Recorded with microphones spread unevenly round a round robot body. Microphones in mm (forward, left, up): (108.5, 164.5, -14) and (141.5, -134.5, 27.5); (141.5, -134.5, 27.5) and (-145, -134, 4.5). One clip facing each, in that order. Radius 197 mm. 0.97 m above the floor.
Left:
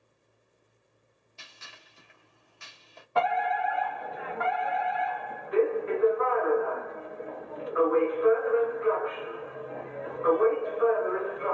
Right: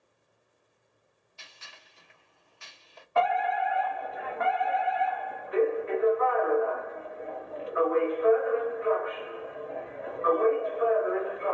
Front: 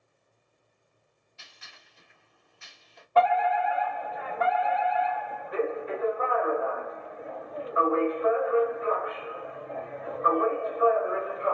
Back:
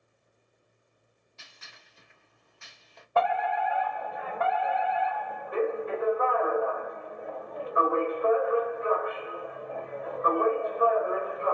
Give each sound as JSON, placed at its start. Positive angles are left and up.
{"t": 1.4, "sound": "a gunshot", "azimuth_deg": 120, "distance_m": 1.2}
{"t": 3.1, "sound": "a fire alarm", "azimuth_deg": 105, "distance_m": 1.7}